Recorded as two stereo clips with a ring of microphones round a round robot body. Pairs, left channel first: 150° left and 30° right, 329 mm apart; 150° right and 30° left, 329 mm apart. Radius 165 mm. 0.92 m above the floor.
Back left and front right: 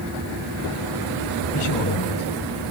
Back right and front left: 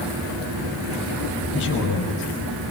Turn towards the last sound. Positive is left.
turn(degrees=155)